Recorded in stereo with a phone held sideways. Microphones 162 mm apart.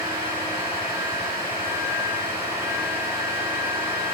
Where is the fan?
20° right (ahead or behind), 2.5 m.